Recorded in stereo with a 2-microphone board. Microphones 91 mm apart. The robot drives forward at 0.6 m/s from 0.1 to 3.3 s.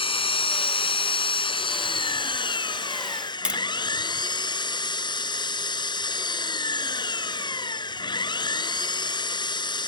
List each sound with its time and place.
0.0 s an engine running: 80° left; by 9.9 s 55° left (ahead or behind)
3.5 s tapping: 10° right (ahead or behind)